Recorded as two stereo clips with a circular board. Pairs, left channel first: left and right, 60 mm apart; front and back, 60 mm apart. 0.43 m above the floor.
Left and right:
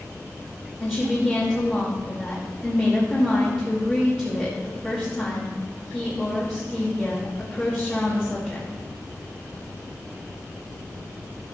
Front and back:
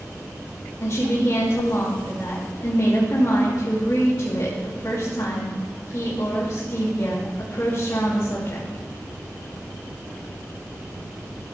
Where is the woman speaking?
35° left, 2.5 m.